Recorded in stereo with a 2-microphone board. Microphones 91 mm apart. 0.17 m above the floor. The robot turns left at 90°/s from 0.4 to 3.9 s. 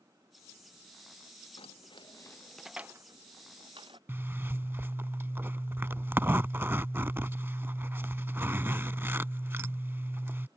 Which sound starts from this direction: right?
A zipper, at 4.1 s.